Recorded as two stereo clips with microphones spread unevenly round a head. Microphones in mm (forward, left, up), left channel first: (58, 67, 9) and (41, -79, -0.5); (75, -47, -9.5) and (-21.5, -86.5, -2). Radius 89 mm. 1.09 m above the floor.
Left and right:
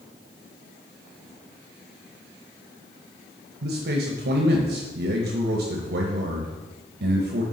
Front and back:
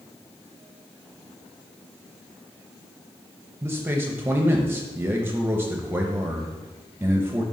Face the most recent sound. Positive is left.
turn(degrees=-85)